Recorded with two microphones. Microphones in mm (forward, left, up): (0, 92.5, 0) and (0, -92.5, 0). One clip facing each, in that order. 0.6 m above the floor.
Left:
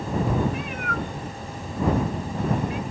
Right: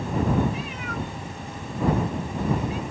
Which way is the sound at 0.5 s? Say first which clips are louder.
Left 2 dB; 60° left (ahead or behind).